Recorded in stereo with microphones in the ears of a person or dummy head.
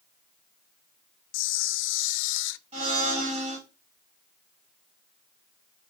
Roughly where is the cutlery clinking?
I don't hear cutlery clinking.